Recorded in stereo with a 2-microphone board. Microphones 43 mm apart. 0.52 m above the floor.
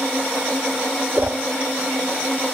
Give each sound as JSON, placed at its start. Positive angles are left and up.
{"t": 1.2, "sound": "a whoosh", "side_deg": -45, "distance_m": 1.2}